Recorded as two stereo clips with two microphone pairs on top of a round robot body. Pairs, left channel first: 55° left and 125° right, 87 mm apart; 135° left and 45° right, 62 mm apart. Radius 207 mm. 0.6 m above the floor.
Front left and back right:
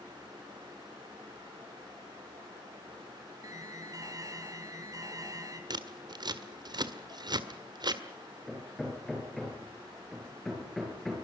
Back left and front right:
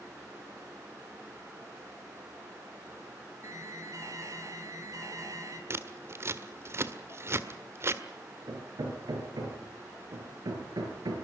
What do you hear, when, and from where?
3.4 s an alarm: 80° right, 4 m
5.7 s scissors: 90° right, 1.8 m
8.5 s hammering: 35° right, 5.5 m